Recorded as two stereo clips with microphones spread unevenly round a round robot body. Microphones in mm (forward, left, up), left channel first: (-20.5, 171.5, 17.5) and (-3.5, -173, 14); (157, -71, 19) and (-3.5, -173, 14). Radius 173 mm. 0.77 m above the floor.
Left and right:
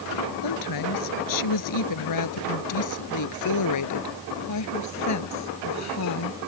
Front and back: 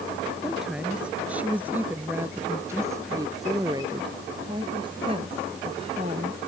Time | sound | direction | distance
0.4 | a woman speaking | 125° left | ?